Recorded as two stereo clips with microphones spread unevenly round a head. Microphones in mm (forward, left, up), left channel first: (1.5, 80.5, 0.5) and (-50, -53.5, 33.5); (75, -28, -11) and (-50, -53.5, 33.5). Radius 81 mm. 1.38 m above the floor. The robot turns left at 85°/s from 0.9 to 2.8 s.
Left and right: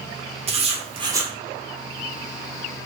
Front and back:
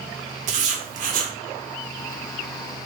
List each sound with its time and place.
0.5 s writing: 155° right, 0.8 m; by 1.3 s 165° left, 0.8 m